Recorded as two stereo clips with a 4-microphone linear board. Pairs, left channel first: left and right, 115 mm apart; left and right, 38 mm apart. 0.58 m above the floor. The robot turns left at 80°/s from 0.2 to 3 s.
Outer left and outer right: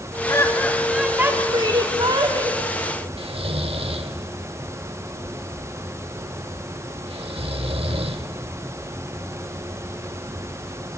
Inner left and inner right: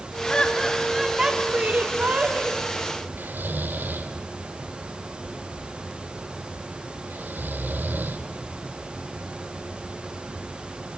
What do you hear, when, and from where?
0.3 s laughter: 50° left, 1.4 m; by 2.6 s 135° right, 1.4 m
3.2 s snoring: 60° right (ahead or behind), 1.4 m